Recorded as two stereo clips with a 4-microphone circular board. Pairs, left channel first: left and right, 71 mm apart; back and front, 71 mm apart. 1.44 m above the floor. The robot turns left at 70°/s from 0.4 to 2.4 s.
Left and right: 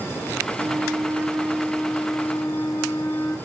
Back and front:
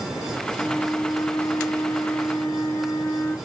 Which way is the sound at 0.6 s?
110° right.